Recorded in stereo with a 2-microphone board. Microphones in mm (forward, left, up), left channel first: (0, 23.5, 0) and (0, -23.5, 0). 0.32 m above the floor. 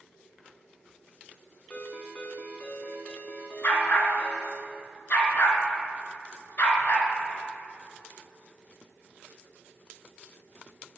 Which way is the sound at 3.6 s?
45° left (ahead or behind).